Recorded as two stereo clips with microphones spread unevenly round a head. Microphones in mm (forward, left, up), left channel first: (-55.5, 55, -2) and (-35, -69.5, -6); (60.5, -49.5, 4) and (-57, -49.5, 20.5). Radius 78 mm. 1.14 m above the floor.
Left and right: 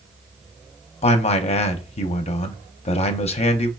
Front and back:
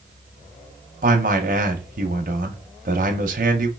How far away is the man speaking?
About 0.6 m.